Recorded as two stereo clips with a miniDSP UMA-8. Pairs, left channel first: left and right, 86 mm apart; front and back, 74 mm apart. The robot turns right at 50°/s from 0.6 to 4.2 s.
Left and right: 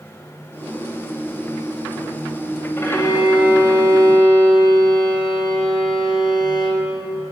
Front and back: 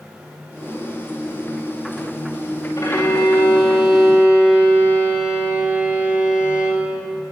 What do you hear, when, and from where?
2.8 s a violin: 30° left, 2.5 m; by 6.9 s 105° left, 2.5 m